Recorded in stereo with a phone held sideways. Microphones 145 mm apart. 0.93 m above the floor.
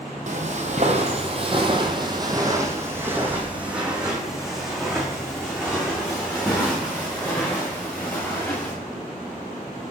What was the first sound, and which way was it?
Footsteps, 55° right (ahead or behind).